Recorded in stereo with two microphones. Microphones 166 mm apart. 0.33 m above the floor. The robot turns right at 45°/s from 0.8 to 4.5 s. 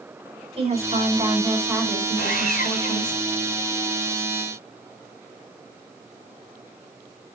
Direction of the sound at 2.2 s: 85° left.